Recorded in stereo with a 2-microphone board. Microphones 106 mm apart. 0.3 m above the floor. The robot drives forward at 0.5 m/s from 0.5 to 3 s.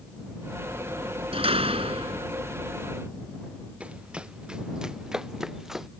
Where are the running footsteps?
10° right (ahead or behind); by 5.9 s 5° right (ahead or behind).